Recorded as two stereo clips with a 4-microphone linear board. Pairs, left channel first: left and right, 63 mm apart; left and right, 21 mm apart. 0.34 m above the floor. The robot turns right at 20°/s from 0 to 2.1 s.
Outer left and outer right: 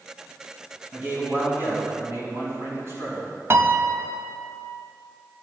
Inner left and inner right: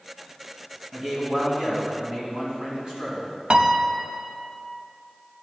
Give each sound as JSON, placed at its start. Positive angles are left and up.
{"t": 0.9, "sound": "a man speaking", "side_deg": -25, "distance_m": 3.5}
{"t": 3.5, "sound": "a piano", "side_deg": -45, "distance_m": 0.5}